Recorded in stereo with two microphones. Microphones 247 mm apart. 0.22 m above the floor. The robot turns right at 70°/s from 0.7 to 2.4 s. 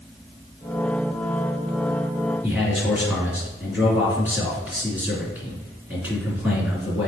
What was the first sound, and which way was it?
A man speaking, 5° right (ahead or behind).